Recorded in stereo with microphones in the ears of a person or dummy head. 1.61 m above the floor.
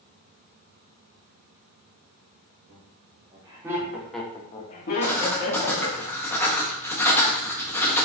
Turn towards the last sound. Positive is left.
turn(degrees=15)  # may be behind; listen again after turning